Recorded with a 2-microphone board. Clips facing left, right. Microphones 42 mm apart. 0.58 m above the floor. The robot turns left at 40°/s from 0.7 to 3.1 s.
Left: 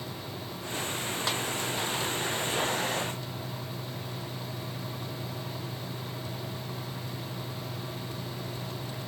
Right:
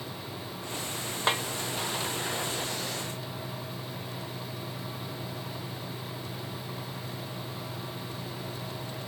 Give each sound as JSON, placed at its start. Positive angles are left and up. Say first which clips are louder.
{"t": 1.3, "sound": "a snare drum", "louder": "right 6 dB", "side_deg": -30, "distance_m": 1.2}